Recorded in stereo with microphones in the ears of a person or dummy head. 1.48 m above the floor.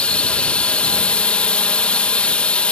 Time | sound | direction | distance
0.0 | a drone | 10° left (ahead or behind) | ?